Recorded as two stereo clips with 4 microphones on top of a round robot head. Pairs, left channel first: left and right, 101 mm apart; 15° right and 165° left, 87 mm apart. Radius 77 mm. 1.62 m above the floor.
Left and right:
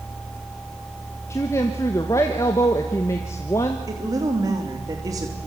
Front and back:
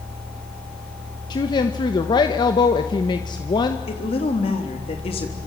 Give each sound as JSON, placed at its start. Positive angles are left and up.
{"t": 1.3, "sound": "a woman speaking", "azimuth_deg": 20, "distance_m": 1.4}
{"t": 3.9, "sound": "a woman speaking", "azimuth_deg": -30, "distance_m": 3.5}